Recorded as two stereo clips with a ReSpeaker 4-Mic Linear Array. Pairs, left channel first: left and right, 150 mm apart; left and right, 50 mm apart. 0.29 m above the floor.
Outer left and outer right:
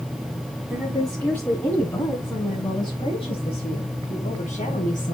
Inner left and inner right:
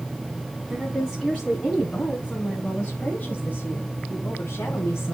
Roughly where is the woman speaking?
Centre.